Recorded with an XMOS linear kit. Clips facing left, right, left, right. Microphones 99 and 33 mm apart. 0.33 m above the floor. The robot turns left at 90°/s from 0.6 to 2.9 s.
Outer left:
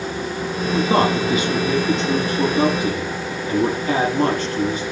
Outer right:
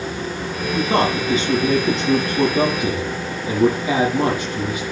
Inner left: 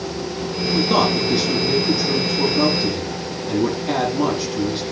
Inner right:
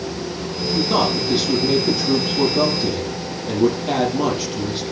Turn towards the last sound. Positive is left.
turn(degrees=-170)